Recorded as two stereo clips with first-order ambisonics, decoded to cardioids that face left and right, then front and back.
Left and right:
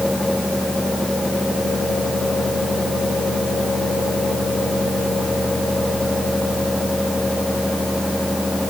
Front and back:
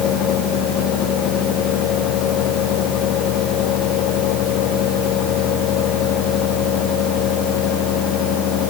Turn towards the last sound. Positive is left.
No sound to turn to.